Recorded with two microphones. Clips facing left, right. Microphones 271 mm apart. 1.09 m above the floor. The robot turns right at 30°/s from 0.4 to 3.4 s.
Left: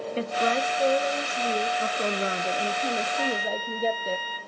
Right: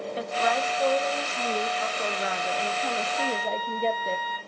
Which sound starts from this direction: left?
A flute, at 3.2 s.